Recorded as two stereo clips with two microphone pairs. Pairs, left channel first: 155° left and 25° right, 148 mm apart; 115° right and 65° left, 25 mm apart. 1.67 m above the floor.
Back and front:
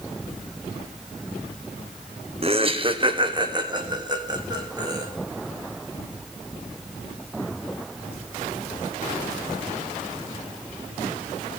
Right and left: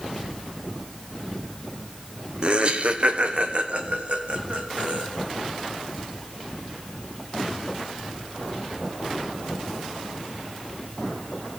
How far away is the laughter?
About 0.7 m.